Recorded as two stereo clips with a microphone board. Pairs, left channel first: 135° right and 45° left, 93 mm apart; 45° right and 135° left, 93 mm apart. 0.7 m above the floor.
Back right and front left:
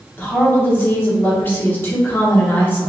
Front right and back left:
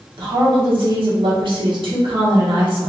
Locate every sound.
0.2 s a woman speaking: 160° left, 1.2 m